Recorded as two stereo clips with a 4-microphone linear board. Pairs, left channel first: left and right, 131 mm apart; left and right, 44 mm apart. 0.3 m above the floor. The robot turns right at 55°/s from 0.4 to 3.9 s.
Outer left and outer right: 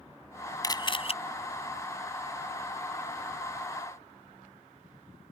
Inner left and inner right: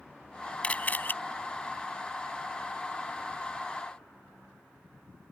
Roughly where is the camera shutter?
Left.